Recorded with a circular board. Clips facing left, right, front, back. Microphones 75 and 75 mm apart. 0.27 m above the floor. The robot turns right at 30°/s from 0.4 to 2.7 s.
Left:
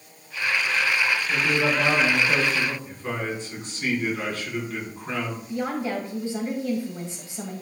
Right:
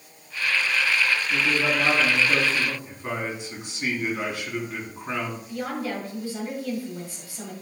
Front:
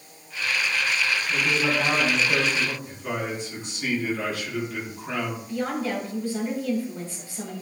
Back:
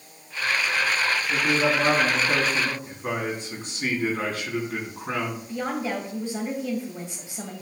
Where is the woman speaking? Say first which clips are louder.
Left 4 dB, front 1 dB; 130° left, 1.5 m.